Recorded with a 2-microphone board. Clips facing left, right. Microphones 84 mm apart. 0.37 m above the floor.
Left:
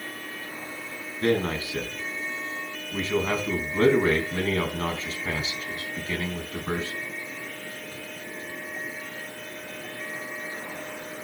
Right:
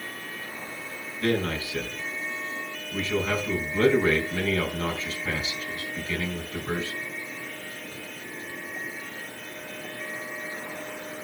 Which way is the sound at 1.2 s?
30° left (ahead or behind).